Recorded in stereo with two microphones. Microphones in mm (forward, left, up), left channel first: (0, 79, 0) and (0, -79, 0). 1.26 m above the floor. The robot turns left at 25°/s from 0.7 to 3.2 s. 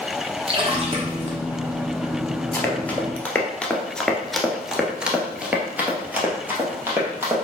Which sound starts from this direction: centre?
Running footsteps, at 2.5 s.